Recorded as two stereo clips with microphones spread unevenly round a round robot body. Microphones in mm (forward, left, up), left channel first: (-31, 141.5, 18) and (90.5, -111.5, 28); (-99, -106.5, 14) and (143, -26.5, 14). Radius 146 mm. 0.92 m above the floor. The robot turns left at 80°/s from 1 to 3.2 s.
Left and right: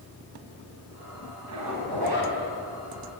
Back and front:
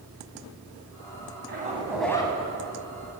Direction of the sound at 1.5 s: 30° right.